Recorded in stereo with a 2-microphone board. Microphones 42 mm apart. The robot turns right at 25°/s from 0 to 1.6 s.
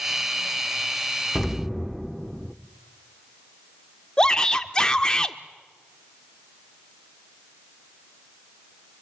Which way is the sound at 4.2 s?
15° left (ahead or behind).